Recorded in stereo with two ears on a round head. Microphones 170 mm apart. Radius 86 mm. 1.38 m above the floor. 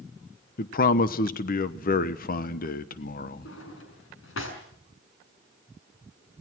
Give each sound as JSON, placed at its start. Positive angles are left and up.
{"t": 0.6, "sound": "a man speaking", "side_deg": 50, "distance_m": 1.1}
{"t": 3.5, "sound": "a drawer", "side_deg": 80, "distance_m": 6.0}